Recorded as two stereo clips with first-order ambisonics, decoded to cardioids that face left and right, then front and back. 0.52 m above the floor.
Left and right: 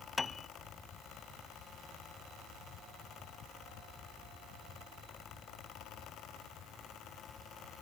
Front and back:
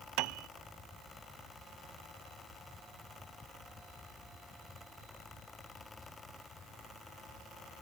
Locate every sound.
0.2 s a piano: 170° left